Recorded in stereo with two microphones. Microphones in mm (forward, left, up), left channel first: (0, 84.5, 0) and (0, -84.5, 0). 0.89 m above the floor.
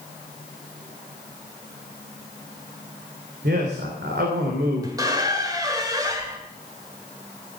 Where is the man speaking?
80° right, 3 m.